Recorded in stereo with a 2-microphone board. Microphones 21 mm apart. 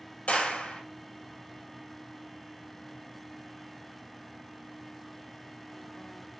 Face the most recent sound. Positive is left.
turn(degrees=75)  # may be behind; listen again after turning